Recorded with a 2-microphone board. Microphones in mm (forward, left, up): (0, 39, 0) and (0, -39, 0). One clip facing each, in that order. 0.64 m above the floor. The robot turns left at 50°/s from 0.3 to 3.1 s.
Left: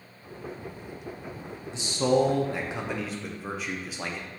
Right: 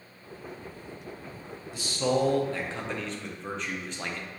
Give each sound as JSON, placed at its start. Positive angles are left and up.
{"t": 1.7, "sound": "a man speaking", "side_deg": 25, "distance_m": 0.5}